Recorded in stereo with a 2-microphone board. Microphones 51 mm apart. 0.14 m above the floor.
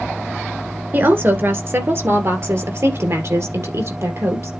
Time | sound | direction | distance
0.9 | a woman speaking | 40° right (ahead or behind) | 2.0 m